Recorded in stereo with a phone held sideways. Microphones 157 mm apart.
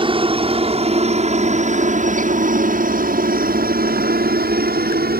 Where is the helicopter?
35° right (ahead or behind); by 5.2 s 65° right (ahead or behind).